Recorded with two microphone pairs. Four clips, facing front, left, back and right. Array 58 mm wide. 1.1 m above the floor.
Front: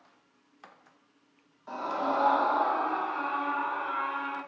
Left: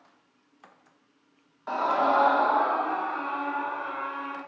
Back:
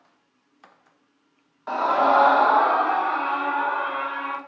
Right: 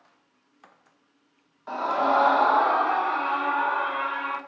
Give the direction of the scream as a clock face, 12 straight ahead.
7 o'clock.